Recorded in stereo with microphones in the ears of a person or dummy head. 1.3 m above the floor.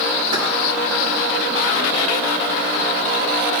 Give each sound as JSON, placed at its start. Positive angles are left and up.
{"t": 0.3, "sound": "keys jangling", "side_deg": -60, "distance_m": 2.5}